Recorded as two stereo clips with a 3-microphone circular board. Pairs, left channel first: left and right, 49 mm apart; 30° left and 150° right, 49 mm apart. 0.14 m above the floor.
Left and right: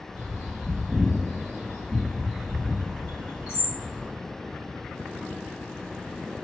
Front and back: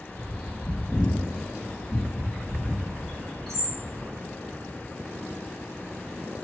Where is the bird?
55° right, 1.5 m.